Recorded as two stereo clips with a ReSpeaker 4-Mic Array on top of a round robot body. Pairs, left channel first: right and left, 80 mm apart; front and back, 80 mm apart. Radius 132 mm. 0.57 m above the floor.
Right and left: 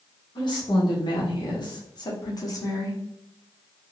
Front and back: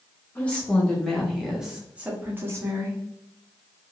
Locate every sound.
0.3 s a woman speaking: 70° right, 1.8 m; by 3.0 s 140° right, 1.4 m